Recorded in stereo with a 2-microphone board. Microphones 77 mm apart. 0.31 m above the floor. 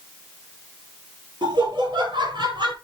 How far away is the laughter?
About 8.5 m.